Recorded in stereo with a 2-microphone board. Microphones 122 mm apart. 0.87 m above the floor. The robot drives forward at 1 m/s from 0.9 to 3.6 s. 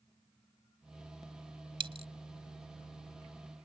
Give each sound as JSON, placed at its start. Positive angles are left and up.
{"t": 1.8, "sound": "a dropped coin", "side_deg": -45}